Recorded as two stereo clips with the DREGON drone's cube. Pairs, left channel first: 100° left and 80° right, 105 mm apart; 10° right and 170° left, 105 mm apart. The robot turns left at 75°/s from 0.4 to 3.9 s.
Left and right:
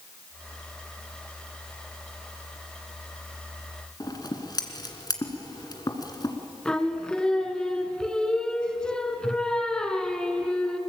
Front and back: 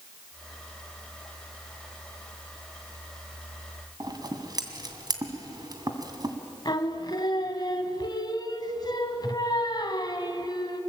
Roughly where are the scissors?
Behind left.